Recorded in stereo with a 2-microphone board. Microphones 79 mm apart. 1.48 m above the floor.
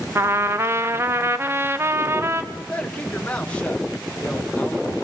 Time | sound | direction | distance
0.1 | a trumpet | 35° right (ahead or behind) | 1.2 m
2.5 | a man speaking | 15° left (ahead or behind) | 1.7 m